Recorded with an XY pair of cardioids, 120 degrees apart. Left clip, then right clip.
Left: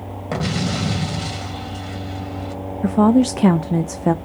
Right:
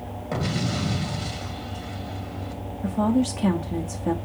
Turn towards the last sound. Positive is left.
turn(degrees=50)